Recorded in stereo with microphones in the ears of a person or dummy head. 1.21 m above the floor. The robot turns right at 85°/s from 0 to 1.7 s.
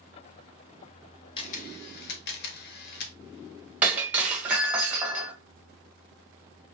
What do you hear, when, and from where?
1.4 s a camera shutter: 30° left (ahead or behind), 1.1 m; by 3.2 s 60° left (ahead or behind), 1.1 m
3.8 s breaking glass: 10° right (ahead or behind), 1.5 m